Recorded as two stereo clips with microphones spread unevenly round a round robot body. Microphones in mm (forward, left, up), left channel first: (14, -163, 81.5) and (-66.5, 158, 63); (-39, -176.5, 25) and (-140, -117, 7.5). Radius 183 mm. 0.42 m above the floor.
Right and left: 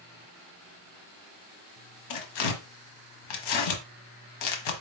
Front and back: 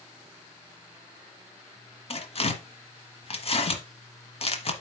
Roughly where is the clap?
No clap in this recording.